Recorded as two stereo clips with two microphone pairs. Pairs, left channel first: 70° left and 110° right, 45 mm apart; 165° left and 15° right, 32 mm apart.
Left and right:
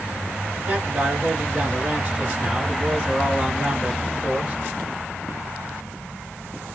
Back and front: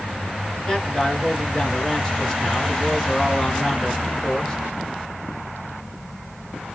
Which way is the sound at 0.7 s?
150° right.